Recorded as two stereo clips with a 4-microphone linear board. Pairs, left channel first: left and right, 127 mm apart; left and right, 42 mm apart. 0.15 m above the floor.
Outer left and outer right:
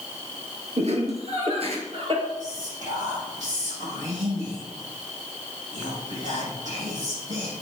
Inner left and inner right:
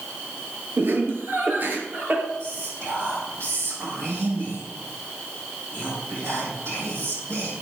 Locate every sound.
0.8 s laughter: 60° right (ahead or behind), 2.5 m; by 2.3 s 45° right (ahead or behind), 3 m
2.4 s whispering: 75° right (ahead or behind), 5 m